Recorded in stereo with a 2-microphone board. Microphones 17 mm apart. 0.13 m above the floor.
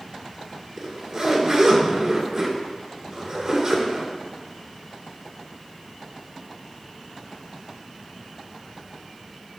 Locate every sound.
0.8 s a zipper: 45° right (ahead or behind), 1.8 m